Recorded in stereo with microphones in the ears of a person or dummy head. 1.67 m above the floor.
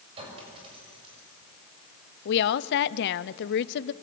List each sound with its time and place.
0.2 s a clink: 30° right (ahead or behind), 6.5 m
2.2 s a woman speaking: 60° left (ahead or behind), 0.7 m